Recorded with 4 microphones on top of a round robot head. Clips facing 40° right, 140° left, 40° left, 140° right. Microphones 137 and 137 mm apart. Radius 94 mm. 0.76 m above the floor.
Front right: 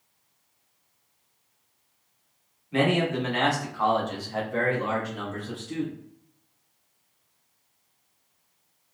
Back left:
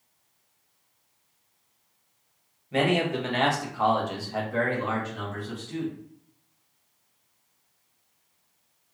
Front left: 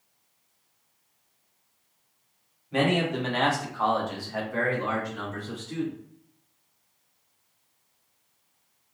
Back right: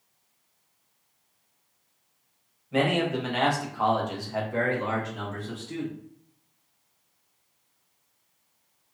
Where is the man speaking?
130° left, 1.2 m; by 5.9 s 90° right, 1.3 m.